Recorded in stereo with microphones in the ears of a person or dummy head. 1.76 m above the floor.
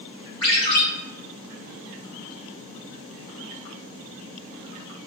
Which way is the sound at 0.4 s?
35° left (ahead or behind).